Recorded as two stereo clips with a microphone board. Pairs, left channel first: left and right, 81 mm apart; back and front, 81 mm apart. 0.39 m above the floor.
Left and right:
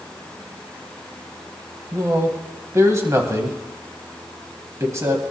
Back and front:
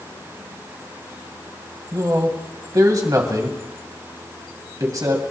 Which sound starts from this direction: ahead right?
A man speaking, at 1.9 s.